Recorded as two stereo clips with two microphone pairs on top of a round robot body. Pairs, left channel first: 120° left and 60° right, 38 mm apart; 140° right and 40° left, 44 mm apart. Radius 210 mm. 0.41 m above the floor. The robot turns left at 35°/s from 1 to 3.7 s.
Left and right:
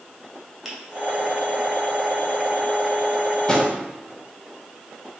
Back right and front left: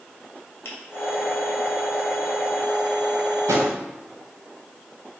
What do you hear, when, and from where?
0.7 s a finger snap: 150° right, 2.5 m
3.5 s a drawer: 50° left, 1.0 m; by 3.7 s 45° left, 1.0 m